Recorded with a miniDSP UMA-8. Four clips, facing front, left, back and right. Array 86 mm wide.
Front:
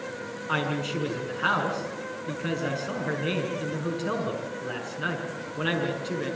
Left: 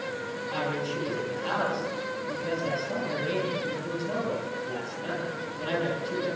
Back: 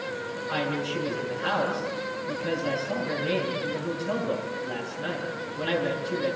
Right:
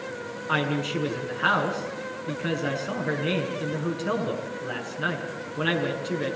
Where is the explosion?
No explosion in this recording.